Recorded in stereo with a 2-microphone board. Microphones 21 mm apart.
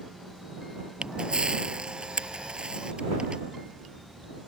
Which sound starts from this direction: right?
A camera shutter, at 1.0 s.